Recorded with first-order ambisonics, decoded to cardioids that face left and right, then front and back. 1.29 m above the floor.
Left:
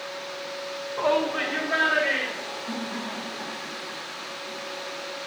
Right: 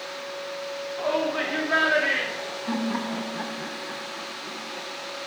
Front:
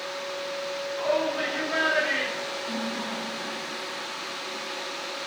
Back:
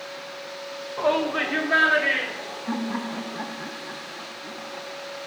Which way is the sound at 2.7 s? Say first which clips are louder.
Right 3 dB, back 1 dB; 135° right.